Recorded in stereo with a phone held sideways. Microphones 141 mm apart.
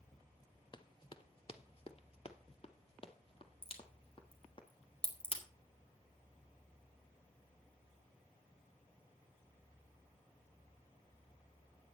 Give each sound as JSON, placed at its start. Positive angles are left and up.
{"t": 0.7, "sound": "running footsteps", "side_deg": 35, "distance_m": 1.0}
{"t": 3.6, "sound": "a crack", "side_deg": 45, "distance_m": 3.0}